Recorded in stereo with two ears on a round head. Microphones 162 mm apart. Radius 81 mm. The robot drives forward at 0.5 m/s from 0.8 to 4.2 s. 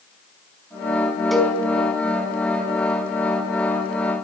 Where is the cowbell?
Centre (ahead or behind), 5 m.